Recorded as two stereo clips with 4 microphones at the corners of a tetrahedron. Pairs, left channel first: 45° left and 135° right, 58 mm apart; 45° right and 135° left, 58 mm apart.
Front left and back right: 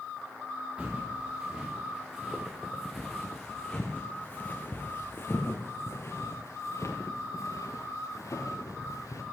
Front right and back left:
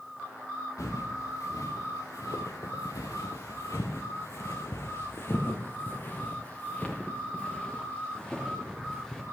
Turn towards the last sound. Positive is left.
turn(degrees=40)